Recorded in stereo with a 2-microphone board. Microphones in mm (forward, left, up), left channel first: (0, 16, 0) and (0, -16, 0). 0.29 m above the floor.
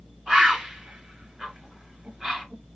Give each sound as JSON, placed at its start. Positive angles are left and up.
{"t": 0.3, "sound": "a bird", "side_deg": -15, "distance_m": 3.0}